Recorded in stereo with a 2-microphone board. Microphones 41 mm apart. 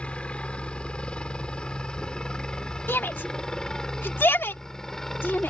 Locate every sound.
0.0 s a helicopter: 30° left (ahead or behind); by 5.5 s 10° left (ahead or behind)
2.9 s a shout: 65° left (ahead or behind)